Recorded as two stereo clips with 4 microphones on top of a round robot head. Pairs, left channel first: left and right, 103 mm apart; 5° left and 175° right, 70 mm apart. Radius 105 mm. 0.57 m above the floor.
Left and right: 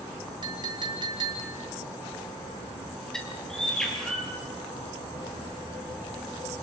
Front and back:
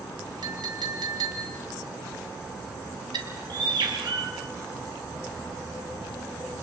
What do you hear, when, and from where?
0.4 s a clink: 140° right, 3.5 m
3.1 s a bird: 175° left, 4 m